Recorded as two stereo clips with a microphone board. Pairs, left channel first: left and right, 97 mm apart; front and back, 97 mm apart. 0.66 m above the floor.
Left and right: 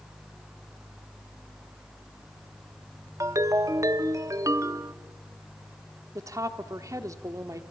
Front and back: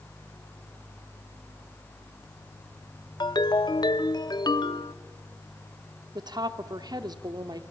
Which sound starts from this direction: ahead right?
A ringtone, at 3.2 s.